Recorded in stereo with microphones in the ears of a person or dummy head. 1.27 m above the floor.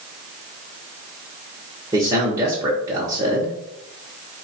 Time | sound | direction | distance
1.9 | a man speaking | 20° right (ahead or behind) | 0.7 m